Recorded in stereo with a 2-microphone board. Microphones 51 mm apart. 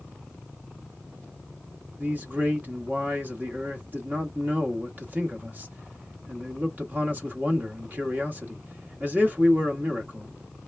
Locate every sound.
2.0 s a man speaking: 35° right (ahead or behind), 1.0 m